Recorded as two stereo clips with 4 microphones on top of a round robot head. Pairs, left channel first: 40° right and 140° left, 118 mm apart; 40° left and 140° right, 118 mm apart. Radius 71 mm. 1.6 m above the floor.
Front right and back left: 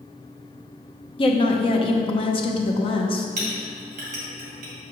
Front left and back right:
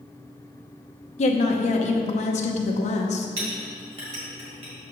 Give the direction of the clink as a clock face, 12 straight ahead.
6 o'clock.